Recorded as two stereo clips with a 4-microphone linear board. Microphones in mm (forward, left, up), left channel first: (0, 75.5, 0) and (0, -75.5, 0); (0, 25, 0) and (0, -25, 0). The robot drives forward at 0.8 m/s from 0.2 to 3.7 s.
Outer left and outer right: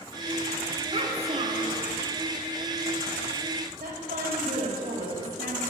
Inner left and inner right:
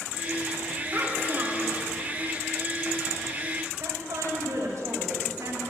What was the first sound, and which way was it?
A child speaking, 35° right (ahead or behind).